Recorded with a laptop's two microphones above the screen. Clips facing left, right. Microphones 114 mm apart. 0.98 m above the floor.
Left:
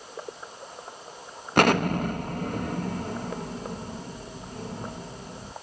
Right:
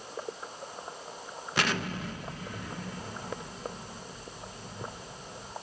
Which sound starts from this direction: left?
An explosion, at 1.6 s.